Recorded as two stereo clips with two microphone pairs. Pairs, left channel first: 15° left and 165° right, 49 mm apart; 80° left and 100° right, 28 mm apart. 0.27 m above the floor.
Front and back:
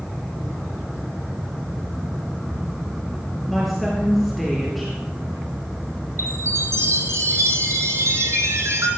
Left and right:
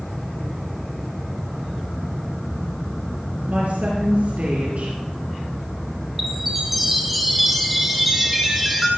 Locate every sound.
3.5 s a woman speaking: 75° right, 5 m
6.2 s a chime: straight behind, 1.9 m